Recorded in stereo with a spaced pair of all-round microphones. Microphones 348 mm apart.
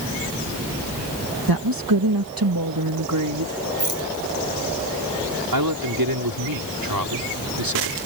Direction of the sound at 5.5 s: 75° right (ahead or behind).